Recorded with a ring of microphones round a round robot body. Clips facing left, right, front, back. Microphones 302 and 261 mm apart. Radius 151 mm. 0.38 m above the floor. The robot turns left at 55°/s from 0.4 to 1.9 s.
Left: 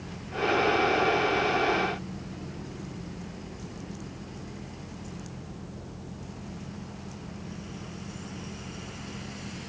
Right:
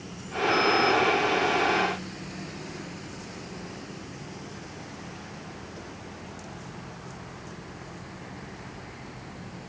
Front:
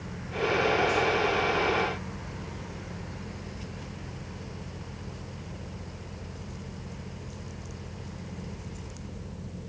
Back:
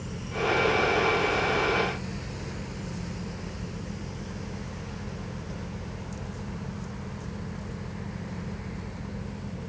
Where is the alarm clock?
I don't hear an alarm clock.